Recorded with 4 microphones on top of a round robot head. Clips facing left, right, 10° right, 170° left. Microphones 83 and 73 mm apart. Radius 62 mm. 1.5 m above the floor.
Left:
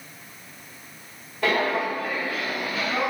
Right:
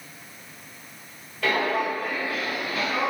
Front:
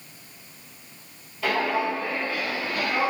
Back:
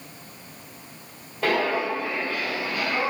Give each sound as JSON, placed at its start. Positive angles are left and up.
{"t": 1.4, "sound": "footsteps", "azimuth_deg": 150, "distance_m": 1.8}